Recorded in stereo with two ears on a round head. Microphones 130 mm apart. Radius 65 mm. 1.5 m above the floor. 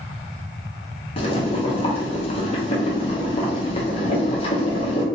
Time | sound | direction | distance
1.2 | boiling | 40° left (ahead or behind) | 0.8 m